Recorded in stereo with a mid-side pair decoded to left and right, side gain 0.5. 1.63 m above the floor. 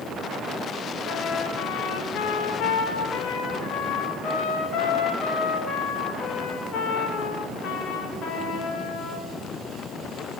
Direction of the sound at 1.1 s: 65° left.